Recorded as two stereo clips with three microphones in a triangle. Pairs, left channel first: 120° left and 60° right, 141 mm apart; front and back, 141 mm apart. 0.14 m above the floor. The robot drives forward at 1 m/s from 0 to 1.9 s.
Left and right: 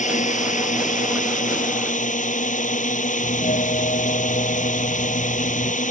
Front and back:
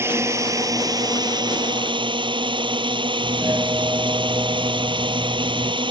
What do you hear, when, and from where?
0.0 s a drone: 110° left; by 5.9 s 130° left
3.2 s a doorbell: 110° left